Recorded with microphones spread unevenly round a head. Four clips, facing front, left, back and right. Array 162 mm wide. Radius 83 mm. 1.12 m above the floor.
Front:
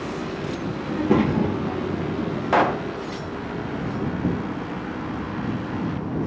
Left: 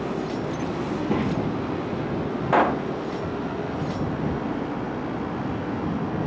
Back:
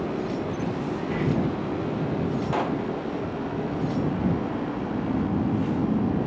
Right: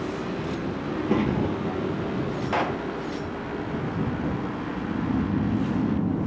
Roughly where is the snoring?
Behind right.